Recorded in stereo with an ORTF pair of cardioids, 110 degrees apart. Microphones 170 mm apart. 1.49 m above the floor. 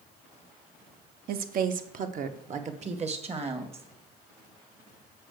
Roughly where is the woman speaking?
Ahead right.